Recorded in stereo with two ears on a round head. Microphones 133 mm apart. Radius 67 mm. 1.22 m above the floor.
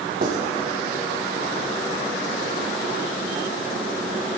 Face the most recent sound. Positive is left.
turn(degrees=-70)  # may be behind; listen again after turning